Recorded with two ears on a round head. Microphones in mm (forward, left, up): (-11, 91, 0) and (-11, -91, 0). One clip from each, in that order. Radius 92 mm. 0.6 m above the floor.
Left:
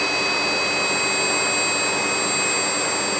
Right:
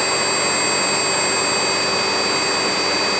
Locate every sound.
Only background noise.